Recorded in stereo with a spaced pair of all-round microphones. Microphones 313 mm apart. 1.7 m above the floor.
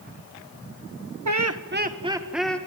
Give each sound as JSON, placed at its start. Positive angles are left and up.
{"t": 1.2, "sound": "laughter", "side_deg": -60, "distance_m": 1.3}